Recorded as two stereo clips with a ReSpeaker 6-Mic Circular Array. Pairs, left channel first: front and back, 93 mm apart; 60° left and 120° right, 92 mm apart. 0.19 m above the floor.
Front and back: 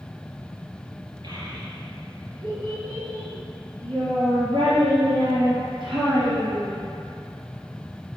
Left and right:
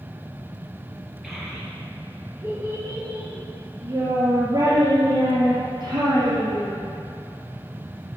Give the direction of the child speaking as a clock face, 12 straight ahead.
7 o'clock.